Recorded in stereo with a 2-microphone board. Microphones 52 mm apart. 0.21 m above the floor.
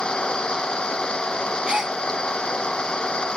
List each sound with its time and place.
0.0 s an engine running: 15° left (ahead or behind)
1.7 s a gasp: 15° right (ahead or behind)